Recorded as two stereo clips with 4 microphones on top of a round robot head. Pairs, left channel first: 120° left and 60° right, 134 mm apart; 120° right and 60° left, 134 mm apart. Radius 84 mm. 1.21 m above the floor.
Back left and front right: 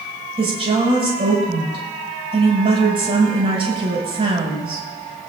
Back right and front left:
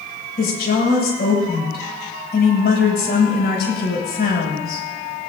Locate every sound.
0.4 s a woman speaking: 110° right, 7.5 m